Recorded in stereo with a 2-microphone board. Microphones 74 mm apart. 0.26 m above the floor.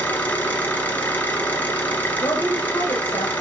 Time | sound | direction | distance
0.0 | an engine running | 20° left (ahead or behind) | 2 m
2.2 | a woman speaking | 55° left (ahead or behind) | 6 m